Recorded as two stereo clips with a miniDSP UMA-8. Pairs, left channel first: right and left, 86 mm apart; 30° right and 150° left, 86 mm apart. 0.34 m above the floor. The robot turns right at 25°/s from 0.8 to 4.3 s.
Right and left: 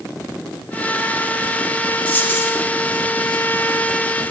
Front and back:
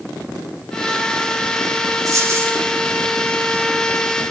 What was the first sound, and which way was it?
A dropped coin, 160° right.